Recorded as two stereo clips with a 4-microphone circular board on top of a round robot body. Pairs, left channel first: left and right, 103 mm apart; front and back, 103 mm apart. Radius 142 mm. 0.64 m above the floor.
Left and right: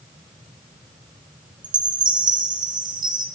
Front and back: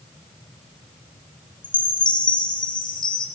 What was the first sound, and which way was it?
A chime, 45° right.